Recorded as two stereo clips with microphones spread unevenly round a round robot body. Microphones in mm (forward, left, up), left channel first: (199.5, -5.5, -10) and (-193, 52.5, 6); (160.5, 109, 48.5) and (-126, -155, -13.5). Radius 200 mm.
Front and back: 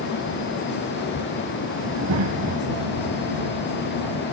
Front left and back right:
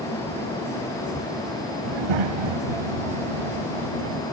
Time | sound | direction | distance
1.8 | a child speaking | 130° right | ?